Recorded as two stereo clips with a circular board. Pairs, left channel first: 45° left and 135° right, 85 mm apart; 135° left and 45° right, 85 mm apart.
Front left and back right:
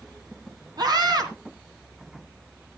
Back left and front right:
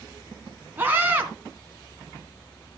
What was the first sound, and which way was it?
A scream, 110° right.